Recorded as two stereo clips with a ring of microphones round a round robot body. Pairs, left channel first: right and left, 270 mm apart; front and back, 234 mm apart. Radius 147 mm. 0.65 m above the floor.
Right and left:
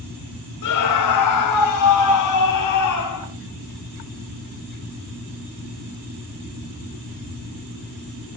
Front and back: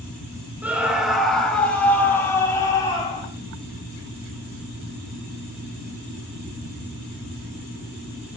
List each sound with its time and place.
0.6 s a scream: 95° right, 4.5 m; by 3.3 s 75° right, 6.5 m